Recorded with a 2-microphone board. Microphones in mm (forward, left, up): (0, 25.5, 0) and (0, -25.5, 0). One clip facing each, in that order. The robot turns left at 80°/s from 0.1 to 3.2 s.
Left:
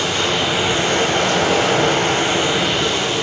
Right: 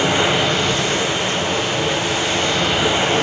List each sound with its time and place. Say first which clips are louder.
0.0 s running water: right 2 dB; 155° right, 1.8 m; by 3.2 s 45° right, 1.8 m